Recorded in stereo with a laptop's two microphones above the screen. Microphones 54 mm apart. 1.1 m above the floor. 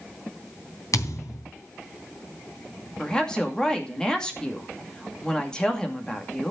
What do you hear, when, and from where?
0.9 s a thud: 75° left (ahead or behind), 3 m
3.0 s a woman speaking: 15° left (ahead or behind), 2.5 m